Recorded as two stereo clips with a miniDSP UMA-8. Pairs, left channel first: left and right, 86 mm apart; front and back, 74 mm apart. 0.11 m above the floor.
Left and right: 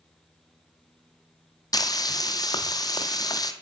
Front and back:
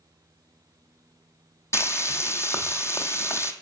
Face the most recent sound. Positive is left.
turn(degrees=50)